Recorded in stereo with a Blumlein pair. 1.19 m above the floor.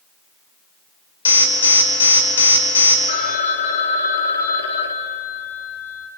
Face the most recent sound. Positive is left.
turn(degrees=60)